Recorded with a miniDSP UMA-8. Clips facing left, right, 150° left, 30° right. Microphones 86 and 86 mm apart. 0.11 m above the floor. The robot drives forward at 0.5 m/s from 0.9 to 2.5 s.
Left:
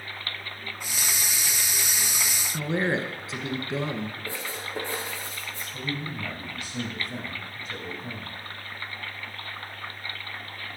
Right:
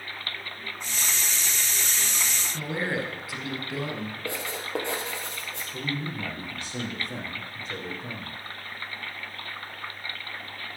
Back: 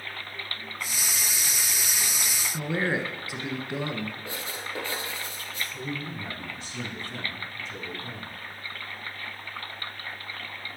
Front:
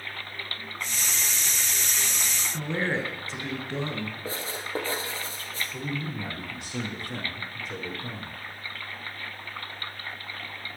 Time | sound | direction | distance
2.5 | a man speaking | 85° left | 1.3 m
4.2 | writing | 80° right | 3 m
5.7 | a man speaking | 40° right | 4 m